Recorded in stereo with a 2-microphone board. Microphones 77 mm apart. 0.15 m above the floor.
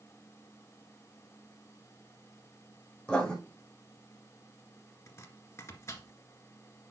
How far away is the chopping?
About 1.9 m.